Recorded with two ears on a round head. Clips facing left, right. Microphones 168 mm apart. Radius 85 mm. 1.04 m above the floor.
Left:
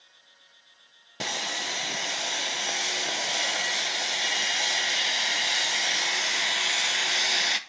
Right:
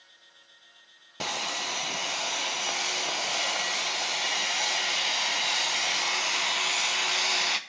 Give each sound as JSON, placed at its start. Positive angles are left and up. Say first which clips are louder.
{"t": 1.2, "sound": "sawing", "louder": "even", "side_deg": 10, "distance_m": 0.8}